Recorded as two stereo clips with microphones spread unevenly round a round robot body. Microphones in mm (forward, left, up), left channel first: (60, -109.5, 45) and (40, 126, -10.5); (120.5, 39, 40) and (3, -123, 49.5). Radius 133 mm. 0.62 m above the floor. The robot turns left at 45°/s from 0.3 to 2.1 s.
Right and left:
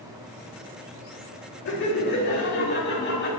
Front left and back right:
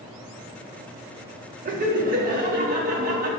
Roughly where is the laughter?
Right.